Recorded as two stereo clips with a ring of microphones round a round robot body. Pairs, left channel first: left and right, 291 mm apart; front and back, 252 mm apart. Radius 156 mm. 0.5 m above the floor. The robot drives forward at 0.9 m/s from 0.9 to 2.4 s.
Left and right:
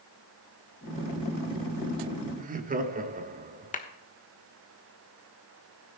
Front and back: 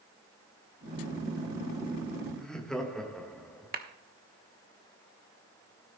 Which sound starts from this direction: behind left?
A clap, at 3.7 s.